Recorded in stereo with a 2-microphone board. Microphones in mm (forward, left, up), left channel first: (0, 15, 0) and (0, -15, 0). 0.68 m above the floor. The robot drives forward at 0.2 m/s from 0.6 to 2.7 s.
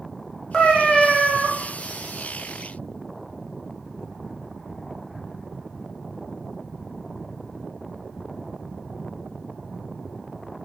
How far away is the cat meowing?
About 0.8 m.